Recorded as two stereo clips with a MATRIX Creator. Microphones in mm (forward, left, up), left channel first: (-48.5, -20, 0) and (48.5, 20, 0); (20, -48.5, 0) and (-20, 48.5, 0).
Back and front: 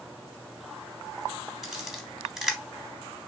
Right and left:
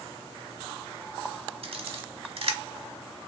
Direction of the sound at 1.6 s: 110° left.